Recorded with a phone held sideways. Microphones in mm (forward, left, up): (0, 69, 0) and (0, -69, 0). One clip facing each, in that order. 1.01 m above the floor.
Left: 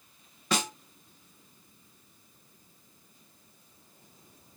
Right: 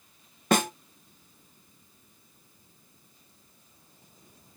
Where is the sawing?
I don't hear sawing.